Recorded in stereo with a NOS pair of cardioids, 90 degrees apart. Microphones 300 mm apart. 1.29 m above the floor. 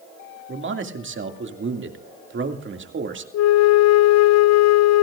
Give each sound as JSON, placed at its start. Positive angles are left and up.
{"t": 0.5, "sound": "a man speaking", "azimuth_deg": -40, "distance_m": 2.5}
{"t": 3.3, "sound": "a flute", "azimuth_deg": 60, "distance_m": 0.7}